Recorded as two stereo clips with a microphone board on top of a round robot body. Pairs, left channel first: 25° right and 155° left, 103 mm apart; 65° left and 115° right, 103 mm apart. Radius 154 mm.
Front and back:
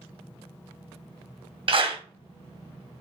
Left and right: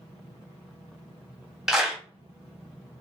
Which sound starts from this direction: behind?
A clap, at 1.7 s.